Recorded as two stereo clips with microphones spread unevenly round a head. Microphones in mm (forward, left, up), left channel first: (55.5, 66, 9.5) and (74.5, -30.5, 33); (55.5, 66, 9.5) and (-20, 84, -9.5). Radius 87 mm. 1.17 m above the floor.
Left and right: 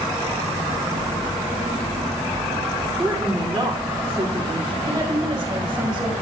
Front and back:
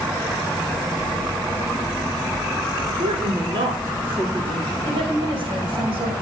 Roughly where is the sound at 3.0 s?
Behind.